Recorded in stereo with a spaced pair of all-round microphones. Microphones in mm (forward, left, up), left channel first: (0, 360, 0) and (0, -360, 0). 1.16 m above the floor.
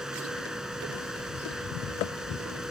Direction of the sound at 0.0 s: Centre (ahead or behind).